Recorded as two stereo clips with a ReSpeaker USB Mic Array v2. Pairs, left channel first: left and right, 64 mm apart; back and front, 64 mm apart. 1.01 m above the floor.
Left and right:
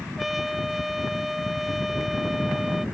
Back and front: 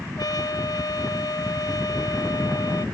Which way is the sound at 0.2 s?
Straight behind.